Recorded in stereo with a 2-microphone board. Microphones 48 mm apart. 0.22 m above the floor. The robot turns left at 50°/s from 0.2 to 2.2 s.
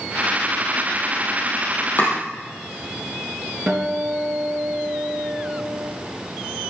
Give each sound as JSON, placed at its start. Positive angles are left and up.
{"t": 2.0, "sound": "chopping", "side_deg": 45, "distance_m": 5.0}
{"t": 3.7, "sound": "a guitar", "side_deg": -15, "distance_m": 4.0}